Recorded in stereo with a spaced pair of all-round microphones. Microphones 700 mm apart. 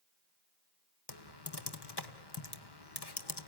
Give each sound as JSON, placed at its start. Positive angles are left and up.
{"t": 1.1, "sound": "typing on a keyboard", "side_deg": 35, "distance_m": 1.3}